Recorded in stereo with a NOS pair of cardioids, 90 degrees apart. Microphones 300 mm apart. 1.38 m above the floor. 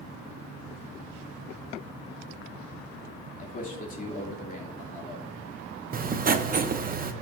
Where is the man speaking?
25° left, 2.5 m.